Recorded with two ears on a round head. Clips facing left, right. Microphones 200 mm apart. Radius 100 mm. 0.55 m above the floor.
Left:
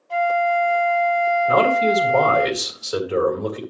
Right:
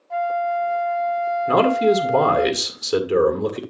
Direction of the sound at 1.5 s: 50° right (ahead or behind).